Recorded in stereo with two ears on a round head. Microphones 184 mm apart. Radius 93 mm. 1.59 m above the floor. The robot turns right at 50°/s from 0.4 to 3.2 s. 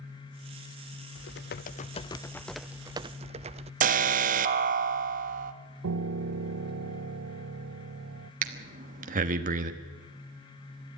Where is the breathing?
40° right (ahead or behind), 1.3 m.